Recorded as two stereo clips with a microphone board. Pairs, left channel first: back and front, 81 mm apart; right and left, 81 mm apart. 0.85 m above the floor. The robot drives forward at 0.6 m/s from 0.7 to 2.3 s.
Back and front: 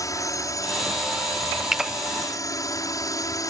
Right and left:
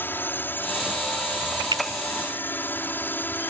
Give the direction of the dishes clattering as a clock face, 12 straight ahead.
No dishes clattering in this recording.